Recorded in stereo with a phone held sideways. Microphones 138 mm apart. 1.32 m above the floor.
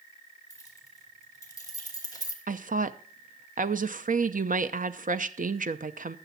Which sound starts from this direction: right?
A woman speaking, at 2.5 s.